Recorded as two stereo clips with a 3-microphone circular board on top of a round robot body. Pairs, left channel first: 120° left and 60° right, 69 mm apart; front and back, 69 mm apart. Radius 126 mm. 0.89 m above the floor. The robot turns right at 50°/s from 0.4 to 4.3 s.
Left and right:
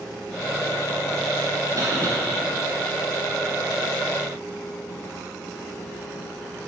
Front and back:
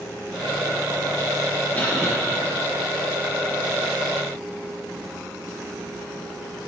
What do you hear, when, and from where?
1.8 s a cough: 60° right, 1.2 m; by 2.1 s 40° right, 1.2 m